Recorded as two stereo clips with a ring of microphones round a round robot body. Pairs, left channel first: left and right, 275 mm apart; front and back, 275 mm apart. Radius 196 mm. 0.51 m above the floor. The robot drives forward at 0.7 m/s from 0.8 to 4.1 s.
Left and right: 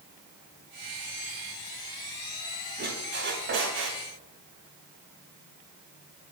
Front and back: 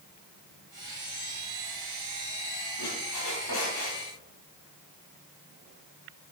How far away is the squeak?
About 3.5 m.